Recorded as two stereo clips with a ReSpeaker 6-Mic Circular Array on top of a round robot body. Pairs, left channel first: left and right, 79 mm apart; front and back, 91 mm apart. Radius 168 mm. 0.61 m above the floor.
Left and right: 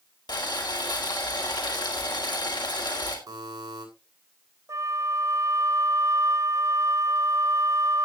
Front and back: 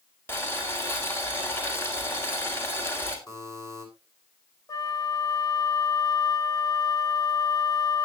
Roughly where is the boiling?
Ahead left.